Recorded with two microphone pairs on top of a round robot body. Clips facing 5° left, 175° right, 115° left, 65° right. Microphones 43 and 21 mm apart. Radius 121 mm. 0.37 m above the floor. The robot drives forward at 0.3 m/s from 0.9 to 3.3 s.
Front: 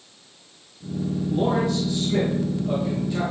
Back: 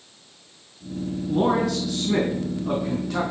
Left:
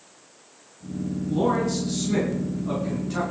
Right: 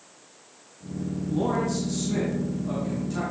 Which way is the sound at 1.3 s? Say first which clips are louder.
Back 2 dB, left 3 dB; 170° right.